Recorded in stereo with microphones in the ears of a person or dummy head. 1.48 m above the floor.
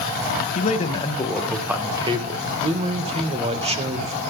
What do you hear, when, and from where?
0.6 s a man speaking: 40° left (ahead or behind), 1.8 m; by 2.4 s 30° right (ahead or behind), 2 m
2.5 s a man speaking: 25° right (ahead or behind), 1.5 m